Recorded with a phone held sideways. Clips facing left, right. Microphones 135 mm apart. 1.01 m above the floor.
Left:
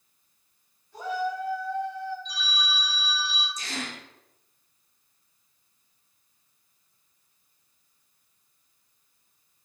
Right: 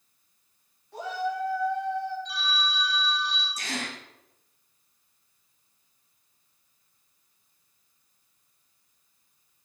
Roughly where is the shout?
Right.